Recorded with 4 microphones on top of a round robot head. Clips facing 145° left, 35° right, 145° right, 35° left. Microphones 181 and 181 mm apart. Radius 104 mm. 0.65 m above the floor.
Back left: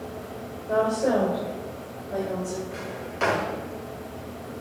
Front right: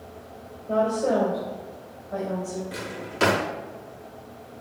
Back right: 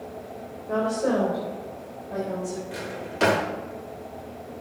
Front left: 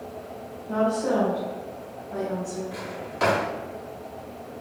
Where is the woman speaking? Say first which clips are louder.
Even, even; 140° right, 3 m; by 2.6 s 145° right, 4.5 m.